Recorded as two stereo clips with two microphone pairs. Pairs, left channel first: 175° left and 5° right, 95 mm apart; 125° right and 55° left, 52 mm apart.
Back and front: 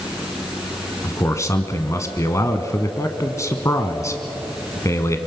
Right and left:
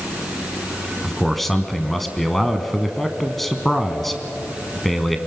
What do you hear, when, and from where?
1.0 s a man speaking: 155° left, 1.2 m